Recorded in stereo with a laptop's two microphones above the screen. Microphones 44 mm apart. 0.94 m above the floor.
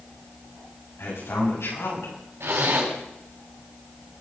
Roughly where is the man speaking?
Left.